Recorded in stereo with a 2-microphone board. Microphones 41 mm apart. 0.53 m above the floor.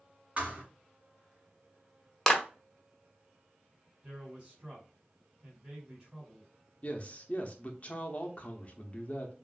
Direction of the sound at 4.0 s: 20° right (ahead or behind).